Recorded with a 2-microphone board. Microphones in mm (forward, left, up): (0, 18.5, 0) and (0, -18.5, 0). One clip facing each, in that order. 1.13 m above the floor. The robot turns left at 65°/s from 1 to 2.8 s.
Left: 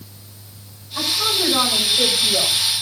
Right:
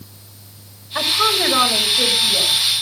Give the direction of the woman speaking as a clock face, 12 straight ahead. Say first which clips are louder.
Right 4 dB; 4 o'clock.